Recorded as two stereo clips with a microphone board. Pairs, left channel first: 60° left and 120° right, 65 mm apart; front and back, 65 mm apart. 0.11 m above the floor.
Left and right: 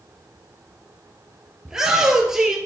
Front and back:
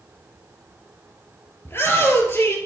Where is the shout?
40° right, 2.5 m.